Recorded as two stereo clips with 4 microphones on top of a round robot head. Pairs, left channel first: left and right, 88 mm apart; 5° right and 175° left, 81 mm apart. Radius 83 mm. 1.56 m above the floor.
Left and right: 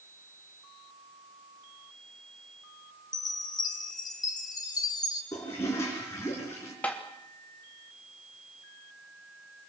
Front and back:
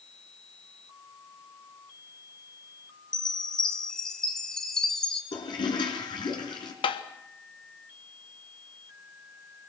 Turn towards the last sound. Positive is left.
turn(degrees=10)